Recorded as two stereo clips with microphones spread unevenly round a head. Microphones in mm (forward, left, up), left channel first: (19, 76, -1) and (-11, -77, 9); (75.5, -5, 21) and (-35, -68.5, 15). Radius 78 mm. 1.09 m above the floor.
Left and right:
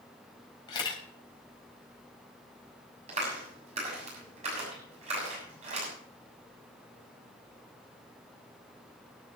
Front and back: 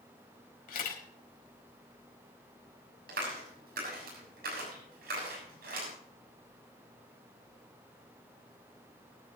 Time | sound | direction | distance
0.7 | a camera shutter | 15° left | 4 m
3.1 | a clap | 155° right | 7 m